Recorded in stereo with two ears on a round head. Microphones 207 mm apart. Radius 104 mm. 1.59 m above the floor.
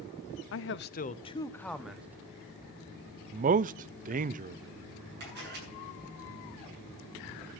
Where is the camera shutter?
45° right (ahead or behind), 8.5 m.